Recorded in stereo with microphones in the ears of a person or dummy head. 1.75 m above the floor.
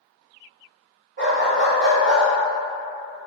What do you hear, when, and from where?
1.2 s a dog barking: 40° right (ahead or behind), 1.8 m; by 2.2 s 20° right (ahead or behind), 2.0 m